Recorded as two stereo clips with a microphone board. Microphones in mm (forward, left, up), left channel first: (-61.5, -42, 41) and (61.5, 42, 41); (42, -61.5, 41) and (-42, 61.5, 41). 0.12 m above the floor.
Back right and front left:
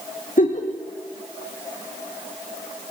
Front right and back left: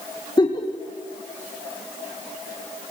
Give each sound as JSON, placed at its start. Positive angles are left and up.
{"t": 0.4, "sound": "a giggle", "azimuth_deg": -115, "distance_m": 4.0}